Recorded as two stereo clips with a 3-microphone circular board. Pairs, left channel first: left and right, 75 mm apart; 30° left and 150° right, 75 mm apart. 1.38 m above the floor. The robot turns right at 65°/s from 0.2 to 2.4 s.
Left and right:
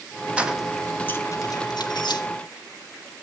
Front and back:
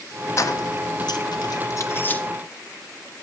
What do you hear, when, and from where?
0.4 s keys jangling: 20° right, 1.0 m; by 2.2 s 100° left, 1.0 m